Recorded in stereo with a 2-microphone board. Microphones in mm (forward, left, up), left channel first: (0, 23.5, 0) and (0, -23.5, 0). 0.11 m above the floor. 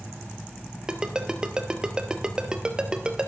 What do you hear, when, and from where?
0.9 s a ringtone: 15° right (ahead or behind), 1.1 m